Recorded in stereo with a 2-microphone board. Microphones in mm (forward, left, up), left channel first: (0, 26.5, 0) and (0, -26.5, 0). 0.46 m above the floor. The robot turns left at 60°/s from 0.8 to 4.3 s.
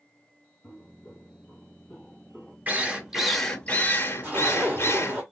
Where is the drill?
145° right, 0.6 m; by 5.2 s 115° left, 0.6 m.